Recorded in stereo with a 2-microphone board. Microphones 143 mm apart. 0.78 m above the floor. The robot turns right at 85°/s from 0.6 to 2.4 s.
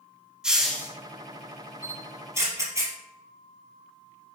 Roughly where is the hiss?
Centre.